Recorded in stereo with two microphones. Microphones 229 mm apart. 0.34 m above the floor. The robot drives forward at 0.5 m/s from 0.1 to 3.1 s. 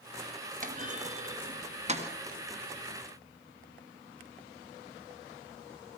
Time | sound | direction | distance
0.6 | a clunk | 35° right (ahead or behind) | 2.5 m